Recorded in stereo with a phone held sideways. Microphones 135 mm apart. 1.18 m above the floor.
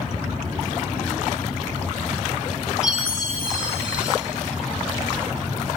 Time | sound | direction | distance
2.8 | a chime | 5° right (ahead or behind) | 1.1 m